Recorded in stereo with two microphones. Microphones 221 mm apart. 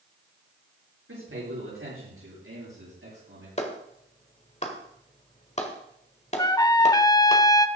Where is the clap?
30° left (ahead or behind), 1.5 m.